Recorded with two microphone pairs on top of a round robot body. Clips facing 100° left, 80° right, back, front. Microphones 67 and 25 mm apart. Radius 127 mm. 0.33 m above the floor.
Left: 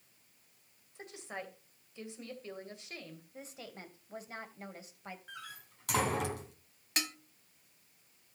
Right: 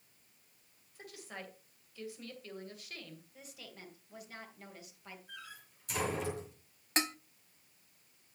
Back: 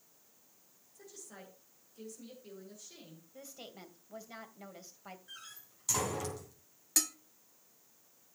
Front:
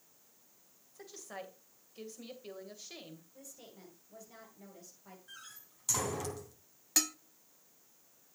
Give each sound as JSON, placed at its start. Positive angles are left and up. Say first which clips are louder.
{"t": 0.9, "sound": "a woman speaking", "louder": "left 4 dB, front 6 dB", "azimuth_deg": 40, "distance_m": 2.5}
{"t": 3.3, "sound": "a woman speaking", "louder": "left 5 dB, back 4 dB", "azimuth_deg": 150, "distance_m": 2.5}
{"t": 5.3, "sound": "a door slam", "louder": "left 2 dB, back 1 dB", "azimuth_deg": 95, "distance_m": 3.0}
{"t": 7.0, "sound": "dishes clattering", "louder": "right 4 dB, front 1 dB", "azimuth_deg": -65, "distance_m": 0.8}